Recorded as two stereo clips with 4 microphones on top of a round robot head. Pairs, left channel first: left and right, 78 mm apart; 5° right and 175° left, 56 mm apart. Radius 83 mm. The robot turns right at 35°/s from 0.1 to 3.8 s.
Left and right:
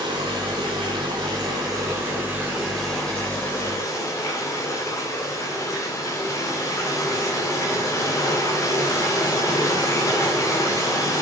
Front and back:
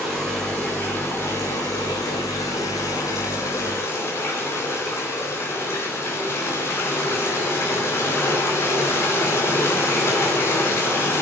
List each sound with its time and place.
0.0 s running water: 95° right, 3 m; by 11.2 s 35° left, 3 m